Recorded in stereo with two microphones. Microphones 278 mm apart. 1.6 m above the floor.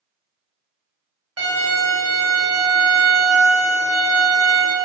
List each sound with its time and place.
1.4 s a violin: 60° right (ahead or behind), 0.8 m